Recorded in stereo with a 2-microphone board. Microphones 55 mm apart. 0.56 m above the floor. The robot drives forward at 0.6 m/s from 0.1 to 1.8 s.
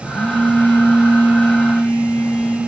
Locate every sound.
0.1 s a phone buzzing: 40° left (ahead or behind), 4 m; by 2.6 s 55° left (ahead or behind), 3 m